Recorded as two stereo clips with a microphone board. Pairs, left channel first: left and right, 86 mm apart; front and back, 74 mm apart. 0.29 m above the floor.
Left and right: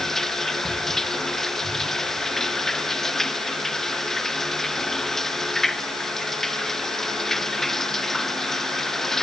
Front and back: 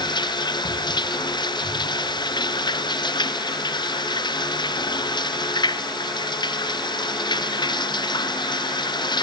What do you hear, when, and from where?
0.0 s running water: 5° left